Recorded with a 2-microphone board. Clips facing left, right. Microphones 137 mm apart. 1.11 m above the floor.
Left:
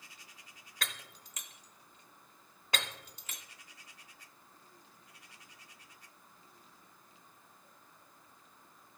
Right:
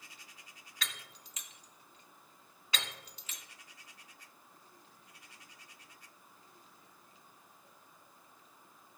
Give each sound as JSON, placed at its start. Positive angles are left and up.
{"t": 0.8, "sound": "breaking glass", "side_deg": 50, "distance_m": 0.9}